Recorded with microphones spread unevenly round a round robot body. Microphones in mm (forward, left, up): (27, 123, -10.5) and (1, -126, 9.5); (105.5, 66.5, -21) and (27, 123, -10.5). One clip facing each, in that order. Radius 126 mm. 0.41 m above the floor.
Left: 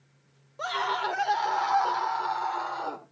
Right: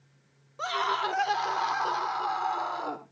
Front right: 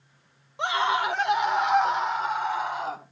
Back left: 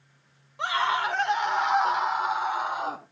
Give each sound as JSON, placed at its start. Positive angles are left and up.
{"t": 0.6, "sound": "a scream", "azimuth_deg": -20, "distance_m": 1.4}